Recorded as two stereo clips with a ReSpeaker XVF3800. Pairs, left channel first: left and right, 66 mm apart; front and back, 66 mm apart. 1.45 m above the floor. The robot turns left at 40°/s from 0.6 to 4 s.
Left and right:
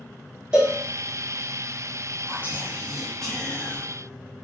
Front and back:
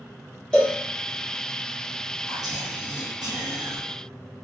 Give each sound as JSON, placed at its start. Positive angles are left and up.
{"t": 0.5, "sound": "a cowbell", "azimuth_deg": -35, "distance_m": 0.7}
{"t": 2.3, "sound": "whispering", "azimuth_deg": -145, "distance_m": 1.2}